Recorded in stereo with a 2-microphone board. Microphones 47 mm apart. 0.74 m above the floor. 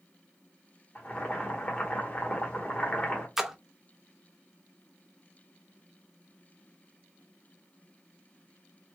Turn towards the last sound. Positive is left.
turn(degrees=-5)  # may be behind; listen again after turning